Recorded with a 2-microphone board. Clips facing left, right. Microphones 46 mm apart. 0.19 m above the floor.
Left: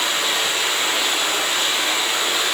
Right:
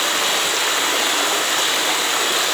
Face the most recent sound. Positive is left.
turn(degrees=-65)  # may be behind; listen again after turning